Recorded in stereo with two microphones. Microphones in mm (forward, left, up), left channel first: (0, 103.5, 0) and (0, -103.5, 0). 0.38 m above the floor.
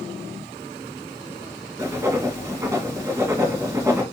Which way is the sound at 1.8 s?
15° right (ahead or behind).